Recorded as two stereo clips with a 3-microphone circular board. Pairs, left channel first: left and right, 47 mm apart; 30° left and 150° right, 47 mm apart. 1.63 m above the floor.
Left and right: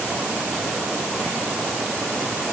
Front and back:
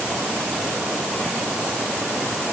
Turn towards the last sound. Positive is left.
No sound to turn to.